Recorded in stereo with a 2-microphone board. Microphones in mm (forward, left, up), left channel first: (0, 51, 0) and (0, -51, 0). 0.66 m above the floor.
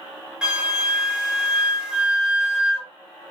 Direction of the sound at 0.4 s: 10° right (ahead or behind).